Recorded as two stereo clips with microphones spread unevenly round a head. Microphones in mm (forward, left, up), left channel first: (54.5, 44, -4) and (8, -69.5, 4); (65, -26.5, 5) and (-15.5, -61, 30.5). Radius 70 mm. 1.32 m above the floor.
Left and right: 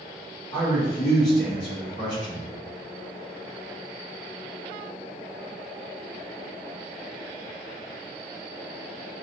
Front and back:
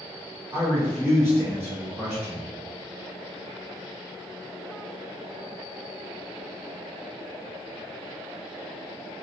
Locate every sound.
0.5 s a man speaking: 130° left, 1.2 m